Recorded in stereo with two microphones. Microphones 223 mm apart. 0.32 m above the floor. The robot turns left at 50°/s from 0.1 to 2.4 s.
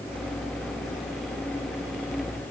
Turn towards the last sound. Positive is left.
No sound to turn to.